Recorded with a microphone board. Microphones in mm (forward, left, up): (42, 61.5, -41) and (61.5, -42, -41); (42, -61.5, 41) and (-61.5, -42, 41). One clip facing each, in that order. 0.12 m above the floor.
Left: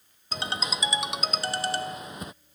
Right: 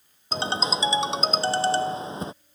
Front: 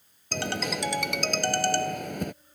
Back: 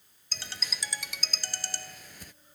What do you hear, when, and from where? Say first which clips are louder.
0.3 s a ringtone: right 6 dB, front 15 dB; 20° right